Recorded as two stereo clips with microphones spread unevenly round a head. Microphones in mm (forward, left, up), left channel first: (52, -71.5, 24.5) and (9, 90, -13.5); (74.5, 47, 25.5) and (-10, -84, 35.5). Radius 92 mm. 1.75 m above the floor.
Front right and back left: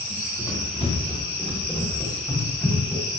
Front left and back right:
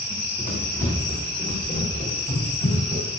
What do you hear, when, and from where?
0.1 s running footsteps: 20° right, 8.5 m; by 3.1 s straight ahead, 9 m